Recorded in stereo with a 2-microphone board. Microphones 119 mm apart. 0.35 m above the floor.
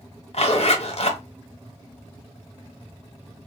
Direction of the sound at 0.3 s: 60° left (ahead or behind).